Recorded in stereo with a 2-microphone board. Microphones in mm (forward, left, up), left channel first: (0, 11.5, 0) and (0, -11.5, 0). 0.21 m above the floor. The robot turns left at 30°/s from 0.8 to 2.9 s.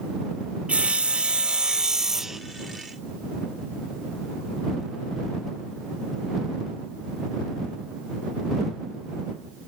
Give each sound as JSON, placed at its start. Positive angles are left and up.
{"t": 0.7, "sound": "sawing", "azimuth_deg": -125}